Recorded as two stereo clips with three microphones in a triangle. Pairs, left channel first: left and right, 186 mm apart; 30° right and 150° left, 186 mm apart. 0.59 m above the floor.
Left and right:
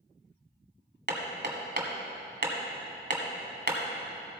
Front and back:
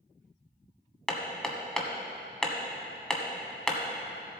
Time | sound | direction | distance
1.1 | hammering | 115° right | 1.4 m